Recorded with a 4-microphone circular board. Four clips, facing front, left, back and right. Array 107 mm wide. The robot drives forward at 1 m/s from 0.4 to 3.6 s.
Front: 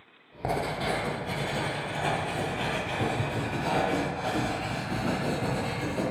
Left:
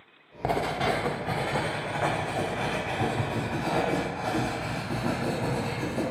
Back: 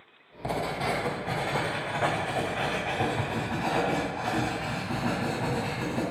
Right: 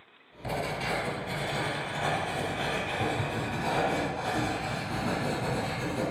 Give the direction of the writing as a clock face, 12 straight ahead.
10 o'clock.